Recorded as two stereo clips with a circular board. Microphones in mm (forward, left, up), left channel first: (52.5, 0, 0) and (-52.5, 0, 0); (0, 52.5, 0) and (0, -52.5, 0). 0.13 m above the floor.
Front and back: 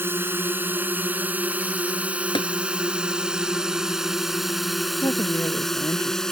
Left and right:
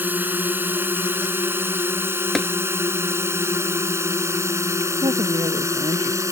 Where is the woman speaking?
55° right.